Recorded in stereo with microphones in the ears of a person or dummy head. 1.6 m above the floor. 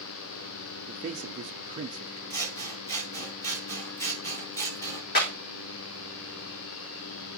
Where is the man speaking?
40° right (ahead or behind), 0.7 m.